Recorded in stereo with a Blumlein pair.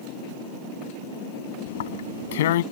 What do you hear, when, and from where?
1.7 s tearing paper: 55° left